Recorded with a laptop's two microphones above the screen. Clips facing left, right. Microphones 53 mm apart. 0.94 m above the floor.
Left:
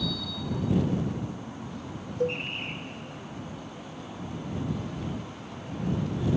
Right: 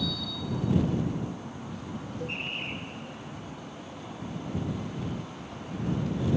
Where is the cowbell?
60° left (ahead or behind).